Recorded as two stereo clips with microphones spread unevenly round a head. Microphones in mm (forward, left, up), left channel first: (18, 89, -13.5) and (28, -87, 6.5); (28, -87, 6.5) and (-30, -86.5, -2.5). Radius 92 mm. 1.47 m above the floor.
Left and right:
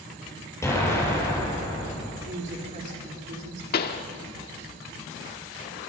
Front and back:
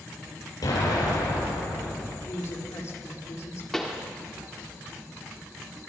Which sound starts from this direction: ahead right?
A woman speaking, at 2.2 s.